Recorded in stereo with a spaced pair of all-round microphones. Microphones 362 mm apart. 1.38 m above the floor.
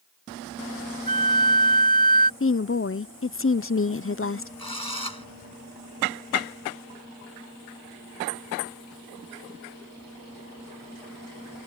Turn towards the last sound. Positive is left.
turn(degrees=80)